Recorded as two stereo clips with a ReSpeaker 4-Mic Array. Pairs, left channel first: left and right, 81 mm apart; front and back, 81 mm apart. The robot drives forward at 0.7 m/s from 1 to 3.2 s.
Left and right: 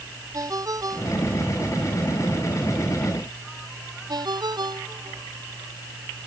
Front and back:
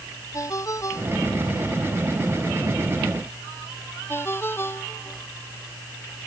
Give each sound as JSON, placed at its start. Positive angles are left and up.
{"t": 0.3, "sound": "a ringtone", "azimuth_deg": -50}